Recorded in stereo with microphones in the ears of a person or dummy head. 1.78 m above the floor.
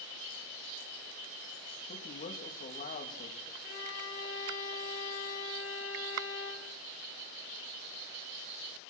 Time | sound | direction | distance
1.9 | a man speaking | 50° left (ahead or behind) | 3 m
3.6 | a violin | 65° left (ahead or behind) | 7 m